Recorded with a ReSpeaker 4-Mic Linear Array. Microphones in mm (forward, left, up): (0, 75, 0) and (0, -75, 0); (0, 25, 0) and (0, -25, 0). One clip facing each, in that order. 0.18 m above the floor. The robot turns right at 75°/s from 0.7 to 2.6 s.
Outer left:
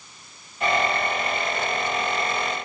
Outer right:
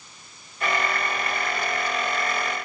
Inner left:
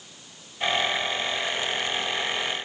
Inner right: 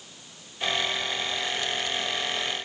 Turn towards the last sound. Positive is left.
No sound to turn to.